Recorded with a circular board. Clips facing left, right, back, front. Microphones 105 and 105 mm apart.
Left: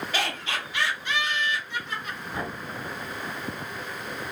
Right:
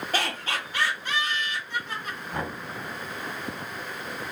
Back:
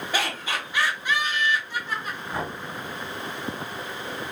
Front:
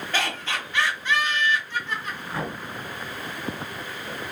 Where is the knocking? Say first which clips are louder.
Right 1 dB, even; 120° right, 1.7 m.